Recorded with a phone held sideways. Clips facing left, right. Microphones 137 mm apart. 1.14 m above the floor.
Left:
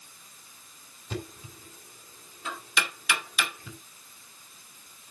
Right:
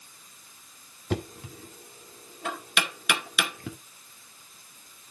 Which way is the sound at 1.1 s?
70° right (ahead or behind).